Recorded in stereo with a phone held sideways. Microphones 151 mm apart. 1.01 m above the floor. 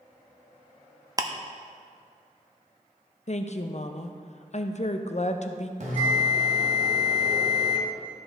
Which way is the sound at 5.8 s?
55° right (ahead or behind).